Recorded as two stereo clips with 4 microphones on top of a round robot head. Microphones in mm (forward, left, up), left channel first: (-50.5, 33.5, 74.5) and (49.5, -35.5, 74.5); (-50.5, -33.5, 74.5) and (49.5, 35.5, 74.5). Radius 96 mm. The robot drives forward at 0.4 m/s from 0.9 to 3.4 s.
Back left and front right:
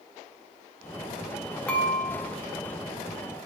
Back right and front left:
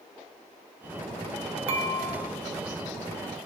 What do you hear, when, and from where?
1.7 s dishes clattering: 65° left, 1.3 m; by 2.2 s 75° left, 1.2 m